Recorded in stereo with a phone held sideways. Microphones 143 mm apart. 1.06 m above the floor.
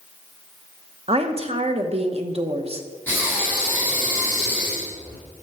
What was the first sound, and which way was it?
A woman speaking, 45° right (ahead or behind).